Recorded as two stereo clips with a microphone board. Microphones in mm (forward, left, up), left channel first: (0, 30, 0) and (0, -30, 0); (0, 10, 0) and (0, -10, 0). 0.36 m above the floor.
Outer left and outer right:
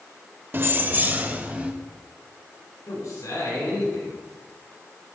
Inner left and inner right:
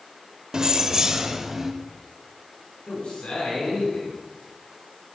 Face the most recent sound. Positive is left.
turn(degrees=70)  # may be behind; listen again after turning